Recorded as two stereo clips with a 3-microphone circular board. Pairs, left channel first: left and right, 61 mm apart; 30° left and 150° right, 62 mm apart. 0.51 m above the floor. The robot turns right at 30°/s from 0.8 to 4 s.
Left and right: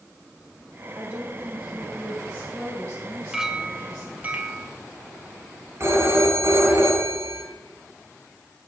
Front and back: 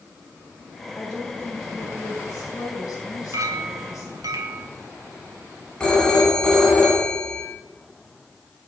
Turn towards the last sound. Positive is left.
turn(degrees=-50)